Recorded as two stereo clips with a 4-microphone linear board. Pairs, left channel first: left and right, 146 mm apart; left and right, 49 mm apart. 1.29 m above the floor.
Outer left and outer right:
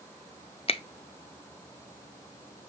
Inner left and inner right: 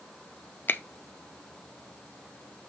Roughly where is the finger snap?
Left.